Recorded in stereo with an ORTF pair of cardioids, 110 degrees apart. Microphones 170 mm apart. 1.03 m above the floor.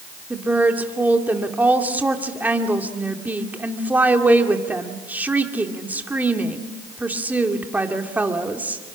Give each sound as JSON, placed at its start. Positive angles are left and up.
{"t": 0.3, "sound": "a woman speaking", "azimuth_deg": -10, "distance_m": 2.0}